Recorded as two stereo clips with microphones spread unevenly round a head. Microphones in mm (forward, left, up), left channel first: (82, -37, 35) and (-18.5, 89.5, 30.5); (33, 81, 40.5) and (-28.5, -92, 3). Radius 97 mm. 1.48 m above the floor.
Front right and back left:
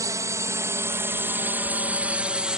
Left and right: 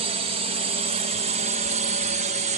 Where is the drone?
160° right; by 2.6 s 150° right.